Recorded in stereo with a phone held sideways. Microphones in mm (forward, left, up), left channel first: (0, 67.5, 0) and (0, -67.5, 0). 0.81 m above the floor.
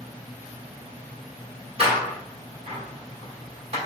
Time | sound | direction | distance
1.8 | a door slam | 45° right (ahead or behind) | 1.5 m